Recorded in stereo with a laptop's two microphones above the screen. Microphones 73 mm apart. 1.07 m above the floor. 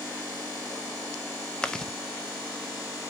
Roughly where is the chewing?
Centre.